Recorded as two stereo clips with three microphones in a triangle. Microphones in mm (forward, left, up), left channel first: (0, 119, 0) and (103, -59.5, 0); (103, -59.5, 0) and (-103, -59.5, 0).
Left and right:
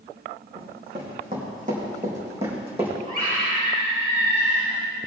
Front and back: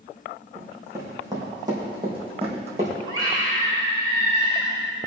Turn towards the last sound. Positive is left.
turn(degrees=-110)